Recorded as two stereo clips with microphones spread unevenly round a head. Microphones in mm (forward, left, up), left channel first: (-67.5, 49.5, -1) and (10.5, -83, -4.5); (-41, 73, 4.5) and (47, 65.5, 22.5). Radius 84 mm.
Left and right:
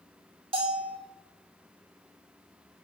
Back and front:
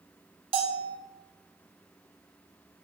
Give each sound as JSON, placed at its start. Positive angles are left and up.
{"t": 0.5, "sound": "a bell", "azimuth_deg": 0, "distance_m": 1.3}